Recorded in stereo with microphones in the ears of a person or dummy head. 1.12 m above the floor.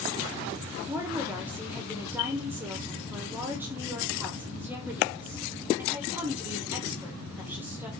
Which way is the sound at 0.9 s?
5° right (ahead or behind).